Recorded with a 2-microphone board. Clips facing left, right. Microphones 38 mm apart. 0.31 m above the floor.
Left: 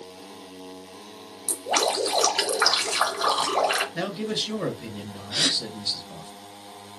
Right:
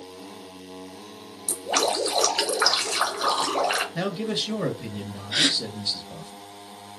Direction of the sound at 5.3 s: 50° right (ahead or behind).